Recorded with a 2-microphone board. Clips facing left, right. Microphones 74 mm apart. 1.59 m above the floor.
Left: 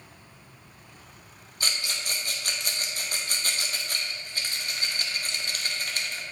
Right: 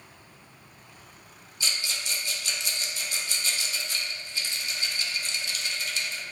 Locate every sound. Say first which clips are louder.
1.6 s a rattle: left 1 dB; 50° left (ahead or behind), 1.2 m